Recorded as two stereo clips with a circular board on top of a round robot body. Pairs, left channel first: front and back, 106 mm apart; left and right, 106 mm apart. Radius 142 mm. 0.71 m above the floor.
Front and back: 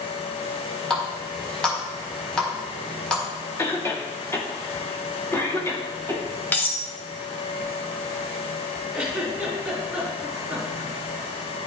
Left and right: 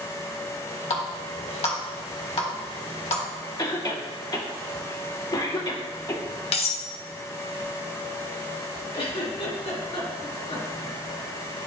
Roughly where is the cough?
Ahead left.